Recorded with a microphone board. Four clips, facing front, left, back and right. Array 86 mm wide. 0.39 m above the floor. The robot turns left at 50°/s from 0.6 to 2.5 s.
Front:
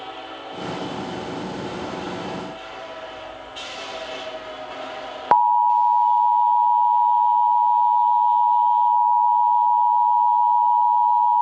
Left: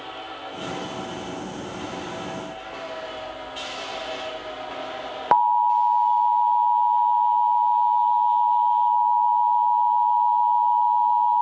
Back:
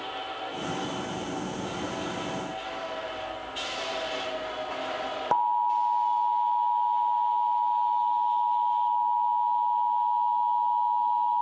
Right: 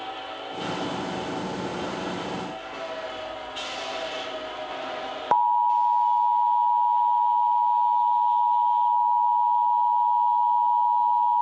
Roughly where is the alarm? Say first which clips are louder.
Left 2 dB, front 9 dB; ahead left.